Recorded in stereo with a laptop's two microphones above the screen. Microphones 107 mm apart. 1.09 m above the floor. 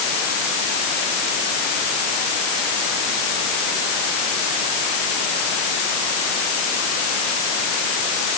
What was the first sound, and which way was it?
Only background noise.